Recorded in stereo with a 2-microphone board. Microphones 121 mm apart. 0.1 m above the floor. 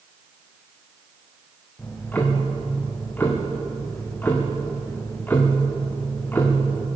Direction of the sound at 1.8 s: 15° left (ahead or behind).